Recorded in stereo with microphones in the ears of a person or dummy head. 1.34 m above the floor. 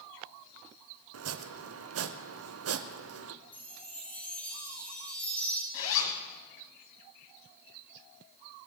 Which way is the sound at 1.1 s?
70° right (ahead or behind).